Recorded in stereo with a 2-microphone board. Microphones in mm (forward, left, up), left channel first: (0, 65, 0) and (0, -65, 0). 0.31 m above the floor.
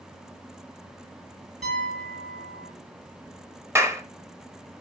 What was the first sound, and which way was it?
A piano, 65° right (ahead or behind).